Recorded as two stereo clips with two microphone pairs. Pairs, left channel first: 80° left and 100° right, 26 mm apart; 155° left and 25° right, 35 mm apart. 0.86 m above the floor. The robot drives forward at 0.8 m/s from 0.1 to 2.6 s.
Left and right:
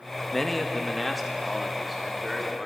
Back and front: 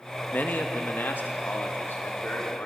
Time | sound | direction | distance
0.3 | a man speaking | 160° left | 0.9 m